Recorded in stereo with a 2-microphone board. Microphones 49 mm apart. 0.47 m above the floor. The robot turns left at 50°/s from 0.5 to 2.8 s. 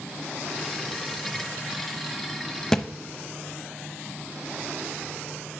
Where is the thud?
10° left (ahead or behind), 0.6 m; by 2.9 s 5° left (ahead or behind), 0.6 m.